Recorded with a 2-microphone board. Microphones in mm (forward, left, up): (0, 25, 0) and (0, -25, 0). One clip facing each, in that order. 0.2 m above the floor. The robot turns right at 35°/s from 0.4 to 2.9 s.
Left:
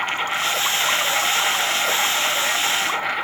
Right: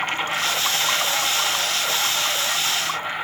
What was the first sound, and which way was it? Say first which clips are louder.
An insect: left 1 dB; 5° left.